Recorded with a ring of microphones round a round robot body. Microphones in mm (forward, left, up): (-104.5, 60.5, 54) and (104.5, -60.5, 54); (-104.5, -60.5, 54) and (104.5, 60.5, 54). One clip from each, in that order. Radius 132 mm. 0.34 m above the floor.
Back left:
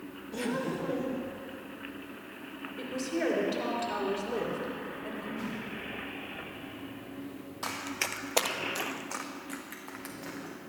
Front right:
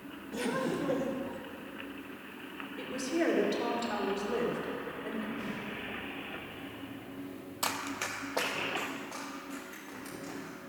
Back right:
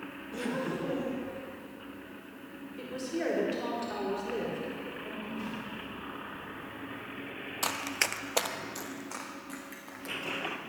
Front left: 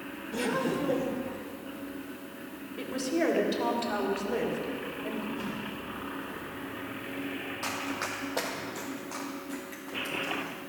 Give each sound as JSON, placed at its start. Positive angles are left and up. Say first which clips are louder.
{"t": 0.3, "sound": "laughter", "louder": "even, front left 5 dB", "azimuth_deg": 70, "distance_m": 1.0}
{"t": 2.8, "sound": "a woman speaking", "louder": "even, front left 5 dB", "azimuth_deg": 60, "distance_m": 2.0}
{"t": 5.4, "sound": "a whoosh", "louder": "back left 1 dB, front left 2 dB", "azimuth_deg": 100, "distance_m": 4.0}
{"t": 7.6, "sound": "running footsteps", "louder": "even, back right 4 dB", "azimuth_deg": -95, "distance_m": 0.8}